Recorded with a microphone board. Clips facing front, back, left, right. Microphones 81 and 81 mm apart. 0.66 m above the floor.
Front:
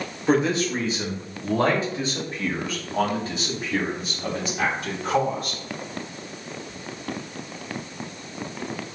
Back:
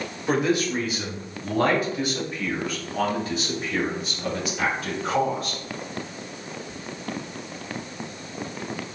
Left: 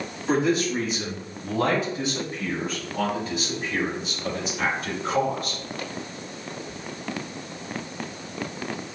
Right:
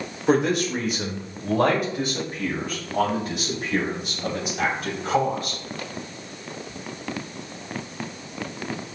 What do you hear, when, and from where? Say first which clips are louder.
0.3 s a man speaking: front 2 dB, right 2 dB; 65° right, 1.5 m; by 5.6 s 55° right, 4.5 m